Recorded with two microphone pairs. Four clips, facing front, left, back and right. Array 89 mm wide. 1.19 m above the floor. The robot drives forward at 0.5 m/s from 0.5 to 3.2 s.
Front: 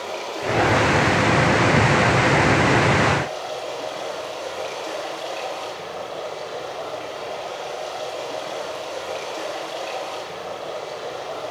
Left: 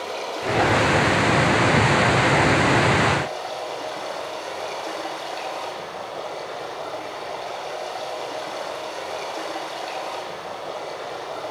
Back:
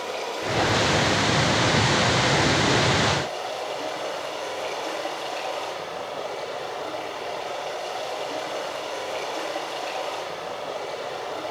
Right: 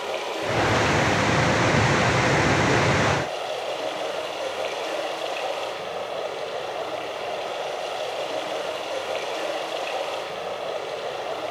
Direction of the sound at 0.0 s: 85° right.